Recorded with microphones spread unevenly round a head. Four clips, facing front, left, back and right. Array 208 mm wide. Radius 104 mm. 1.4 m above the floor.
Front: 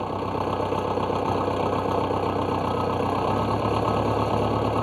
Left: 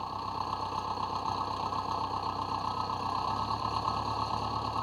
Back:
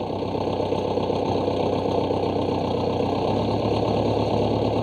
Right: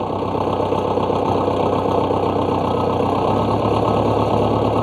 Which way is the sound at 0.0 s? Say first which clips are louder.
Right 15 dB, back 1 dB; 105° right.